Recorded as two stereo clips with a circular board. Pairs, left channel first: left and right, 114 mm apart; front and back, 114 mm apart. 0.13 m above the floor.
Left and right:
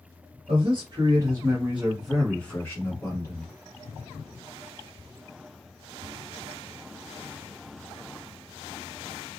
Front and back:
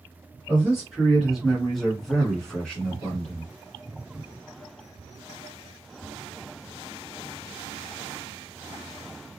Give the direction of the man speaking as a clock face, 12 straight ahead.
3 o'clock.